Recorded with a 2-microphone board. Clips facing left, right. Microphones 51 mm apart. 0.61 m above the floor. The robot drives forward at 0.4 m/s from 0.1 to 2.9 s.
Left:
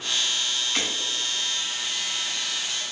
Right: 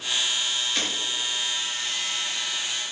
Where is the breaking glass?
60° left (ahead or behind), 3 m; by 0.9 s 65° left (ahead or behind), 3 m.